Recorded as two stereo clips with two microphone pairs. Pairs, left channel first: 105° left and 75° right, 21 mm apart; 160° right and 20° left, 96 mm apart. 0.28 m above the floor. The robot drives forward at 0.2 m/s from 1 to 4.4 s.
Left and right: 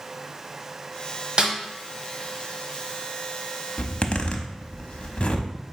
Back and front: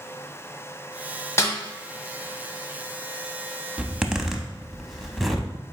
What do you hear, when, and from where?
1.4 s a snare drum: 110° right, 1.1 m; by 1.5 s 115° right, 1.1 m
3.8 s a zipper: 95° left, 0.6 m; by 5.5 s 110° left, 0.6 m